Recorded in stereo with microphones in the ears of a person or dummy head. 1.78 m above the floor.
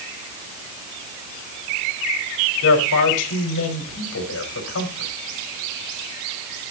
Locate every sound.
2.6 s a man speaking: 75° left (ahead or behind), 5 m